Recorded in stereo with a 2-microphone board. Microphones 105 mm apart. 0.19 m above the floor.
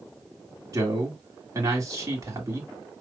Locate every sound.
0.7 s a man speaking: 35° right (ahead or behind), 2 m